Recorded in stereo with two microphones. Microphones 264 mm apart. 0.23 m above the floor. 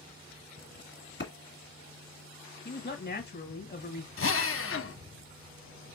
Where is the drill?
50° left (ahead or behind), 0.7 m.